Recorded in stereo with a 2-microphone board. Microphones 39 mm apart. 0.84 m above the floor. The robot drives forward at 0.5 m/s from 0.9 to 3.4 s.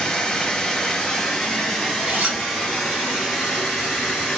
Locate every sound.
0.0 s running water: 15° left (ahead or behind), 1.0 m; by 4.4 s 5° left (ahead or behind), 2 m
2.1 s a zipper: 40° right (ahead or behind), 2.5 m; by 2.5 s 45° right (ahead or behind), 2.5 m